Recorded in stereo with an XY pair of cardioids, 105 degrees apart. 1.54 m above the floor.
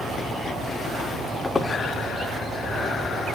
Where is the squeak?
15° left, 3 m.